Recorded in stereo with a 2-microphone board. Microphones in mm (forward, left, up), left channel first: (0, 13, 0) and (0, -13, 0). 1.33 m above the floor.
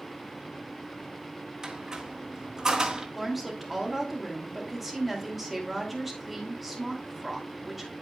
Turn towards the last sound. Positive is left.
turn(degrees=-5)  # may be behind; listen again after turning